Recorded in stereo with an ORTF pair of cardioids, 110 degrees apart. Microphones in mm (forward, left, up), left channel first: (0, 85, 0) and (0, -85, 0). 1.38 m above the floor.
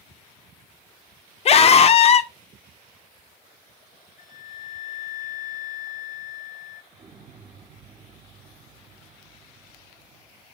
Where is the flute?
45° left, 0.6 m.